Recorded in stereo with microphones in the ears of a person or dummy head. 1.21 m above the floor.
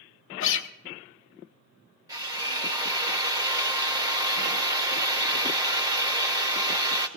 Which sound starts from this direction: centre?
A drill, at 2.1 s.